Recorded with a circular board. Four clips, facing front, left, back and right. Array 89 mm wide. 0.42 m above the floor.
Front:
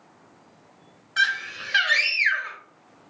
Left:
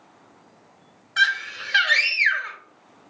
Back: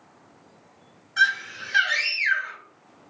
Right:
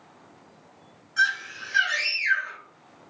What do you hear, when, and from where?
1.2 s a scream: 60° left, 2.5 m